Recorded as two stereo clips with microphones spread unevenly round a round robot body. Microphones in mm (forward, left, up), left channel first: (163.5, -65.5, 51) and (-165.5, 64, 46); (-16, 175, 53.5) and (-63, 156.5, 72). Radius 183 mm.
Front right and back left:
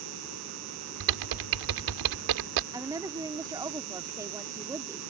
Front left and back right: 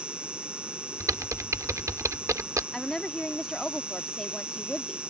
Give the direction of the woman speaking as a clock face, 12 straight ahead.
9 o'clock.